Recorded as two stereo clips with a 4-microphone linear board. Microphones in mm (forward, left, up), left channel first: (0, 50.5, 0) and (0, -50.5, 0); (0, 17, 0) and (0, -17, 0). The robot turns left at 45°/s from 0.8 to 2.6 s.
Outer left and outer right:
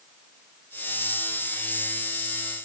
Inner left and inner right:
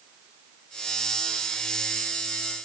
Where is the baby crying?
No baby crying in this recording.